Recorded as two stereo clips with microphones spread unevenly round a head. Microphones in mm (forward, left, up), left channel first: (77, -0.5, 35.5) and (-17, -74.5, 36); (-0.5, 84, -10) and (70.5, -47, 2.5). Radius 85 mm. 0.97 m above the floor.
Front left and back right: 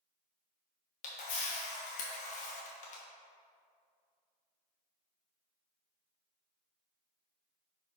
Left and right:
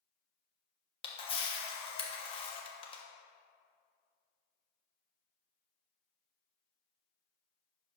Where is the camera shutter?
70° left, 1.2 m.